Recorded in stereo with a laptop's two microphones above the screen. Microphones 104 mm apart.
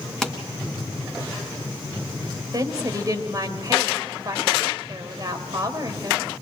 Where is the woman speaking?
35° right (ahead or behind), 4 m.